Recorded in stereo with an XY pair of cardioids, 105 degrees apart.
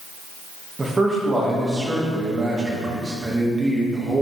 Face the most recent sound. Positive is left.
turn(degrees=-25)